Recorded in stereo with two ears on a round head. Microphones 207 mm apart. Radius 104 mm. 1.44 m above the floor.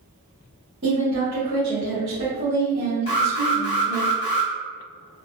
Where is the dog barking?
I don't hear a dog barking.